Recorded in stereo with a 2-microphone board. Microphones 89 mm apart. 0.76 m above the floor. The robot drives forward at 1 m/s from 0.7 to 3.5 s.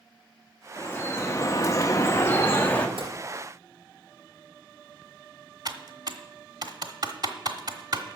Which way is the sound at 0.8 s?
20° left (ahead or behind).